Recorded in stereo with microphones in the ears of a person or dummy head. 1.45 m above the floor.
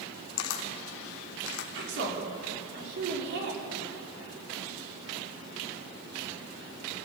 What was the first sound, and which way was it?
A camera shutter, 75° left (ahead or behind).